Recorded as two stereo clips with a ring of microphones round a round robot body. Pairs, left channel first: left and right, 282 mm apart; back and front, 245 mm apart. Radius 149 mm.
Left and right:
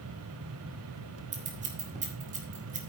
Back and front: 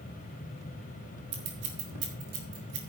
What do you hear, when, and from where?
1.3 s scissors: 25° right, 2 m